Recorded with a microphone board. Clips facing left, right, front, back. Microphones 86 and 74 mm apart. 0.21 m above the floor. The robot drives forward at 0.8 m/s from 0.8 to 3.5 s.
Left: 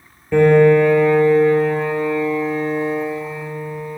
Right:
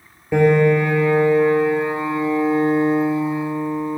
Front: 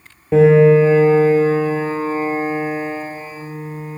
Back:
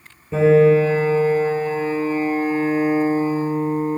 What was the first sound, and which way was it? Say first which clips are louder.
A piano: left 4 dB, front 3 dB; 10° right.